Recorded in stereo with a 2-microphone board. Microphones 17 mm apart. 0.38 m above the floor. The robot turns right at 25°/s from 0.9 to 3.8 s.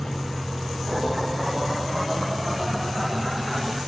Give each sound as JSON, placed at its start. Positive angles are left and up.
{"t": 0.0, "sound": "a vehicle", "azimuth_deg": 70}